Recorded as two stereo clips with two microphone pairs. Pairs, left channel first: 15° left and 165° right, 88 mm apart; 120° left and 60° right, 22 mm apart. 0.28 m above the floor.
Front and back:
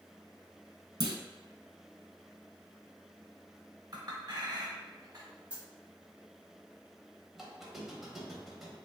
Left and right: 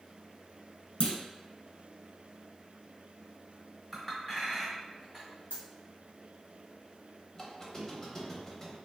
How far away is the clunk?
About 0.6 m.